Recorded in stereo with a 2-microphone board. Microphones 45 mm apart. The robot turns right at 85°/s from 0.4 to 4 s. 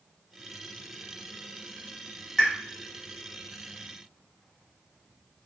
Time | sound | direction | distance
2.4 | a pop | 5° right (ahead or behind) | 1.0 m